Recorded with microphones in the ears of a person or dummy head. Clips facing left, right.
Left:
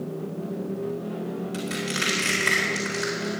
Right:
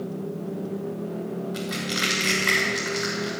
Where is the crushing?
35° left (ahead or behind), 4 m.